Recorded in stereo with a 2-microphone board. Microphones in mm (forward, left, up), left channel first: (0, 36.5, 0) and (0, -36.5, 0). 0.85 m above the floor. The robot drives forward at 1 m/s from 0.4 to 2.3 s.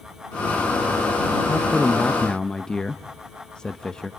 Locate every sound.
1.5 s a man speaking: 10° left (ahead or behind), 0.8 m